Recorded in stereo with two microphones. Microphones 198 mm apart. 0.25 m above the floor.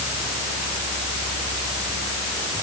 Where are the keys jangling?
I don't hear keys jangling.